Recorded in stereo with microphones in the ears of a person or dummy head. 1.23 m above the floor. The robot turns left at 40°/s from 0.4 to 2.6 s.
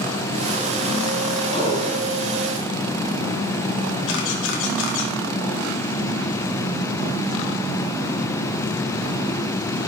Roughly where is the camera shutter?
Left.